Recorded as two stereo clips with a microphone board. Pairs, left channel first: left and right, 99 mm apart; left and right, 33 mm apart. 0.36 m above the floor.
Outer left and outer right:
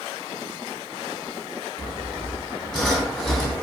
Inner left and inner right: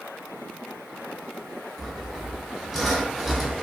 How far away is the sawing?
About 0.6 m.